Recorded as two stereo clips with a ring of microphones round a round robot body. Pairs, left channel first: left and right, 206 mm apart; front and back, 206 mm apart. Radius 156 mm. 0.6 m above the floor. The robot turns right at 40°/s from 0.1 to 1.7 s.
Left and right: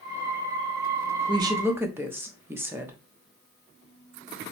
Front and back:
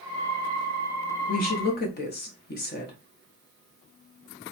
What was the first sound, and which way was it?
A woman speaking, 30° right.